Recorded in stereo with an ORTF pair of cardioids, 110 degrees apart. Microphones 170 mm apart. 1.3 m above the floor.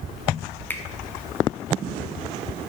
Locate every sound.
0.7 s a finger snap: 10° left, 0.7 m